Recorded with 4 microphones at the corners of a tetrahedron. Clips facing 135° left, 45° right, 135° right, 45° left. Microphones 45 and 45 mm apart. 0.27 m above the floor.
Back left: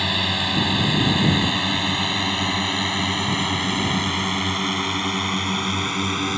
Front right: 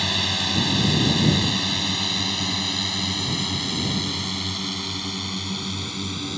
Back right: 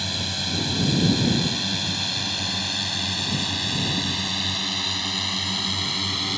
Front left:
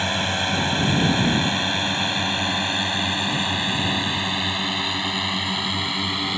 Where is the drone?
65° left; by 6.4 s 115° left.